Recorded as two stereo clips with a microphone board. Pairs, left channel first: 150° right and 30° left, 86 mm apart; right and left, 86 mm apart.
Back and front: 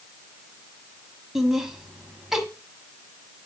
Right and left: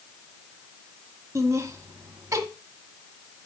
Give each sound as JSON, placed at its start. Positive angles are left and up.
{"t": 1.4, "sound": "laughter", "azimuth_deg": 110, "distance_m": 1.3}